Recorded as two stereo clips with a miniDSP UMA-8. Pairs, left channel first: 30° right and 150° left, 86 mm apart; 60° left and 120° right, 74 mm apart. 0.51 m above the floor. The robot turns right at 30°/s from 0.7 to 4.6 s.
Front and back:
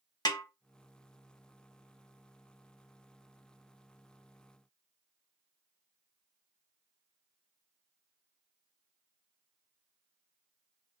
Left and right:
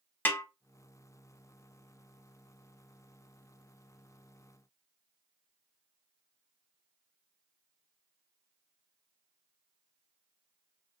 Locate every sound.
0.2 s a snare drum: straight ahead, 0.6 m